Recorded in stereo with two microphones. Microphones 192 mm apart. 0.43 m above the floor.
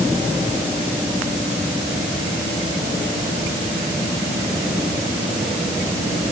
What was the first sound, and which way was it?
Only background noise.